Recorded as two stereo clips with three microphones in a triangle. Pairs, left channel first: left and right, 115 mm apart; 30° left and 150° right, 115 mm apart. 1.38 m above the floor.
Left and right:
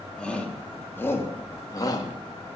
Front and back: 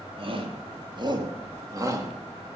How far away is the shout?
About 3 m.